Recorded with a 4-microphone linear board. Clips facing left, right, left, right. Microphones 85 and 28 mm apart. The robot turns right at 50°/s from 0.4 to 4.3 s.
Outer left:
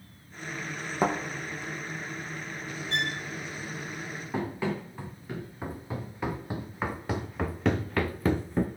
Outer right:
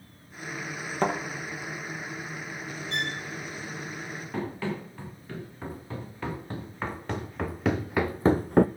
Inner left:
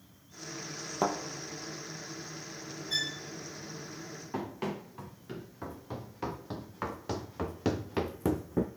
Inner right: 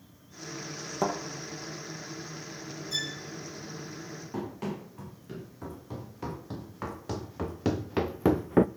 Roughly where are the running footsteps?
Centre.